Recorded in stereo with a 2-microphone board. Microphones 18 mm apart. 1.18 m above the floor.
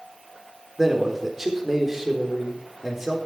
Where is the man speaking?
15° right (ahead or behind), 4 m.